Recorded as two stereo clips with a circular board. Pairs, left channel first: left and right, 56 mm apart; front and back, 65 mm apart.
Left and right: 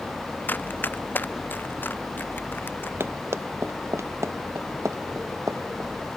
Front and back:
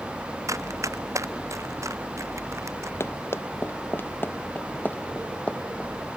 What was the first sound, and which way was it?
Running footsteps, 145° left.